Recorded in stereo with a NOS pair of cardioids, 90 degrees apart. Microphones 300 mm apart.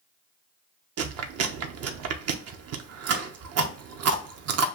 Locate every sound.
1.0 s chewing: 55° right, 0.7 m